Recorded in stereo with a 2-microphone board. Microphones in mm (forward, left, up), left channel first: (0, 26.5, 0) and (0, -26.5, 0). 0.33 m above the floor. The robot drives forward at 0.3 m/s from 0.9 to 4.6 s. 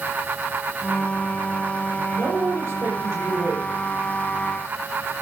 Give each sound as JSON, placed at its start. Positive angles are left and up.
{"t": 2.1, "sound": "a man speaking", "side_deg": -60, "distance_m": 8.0}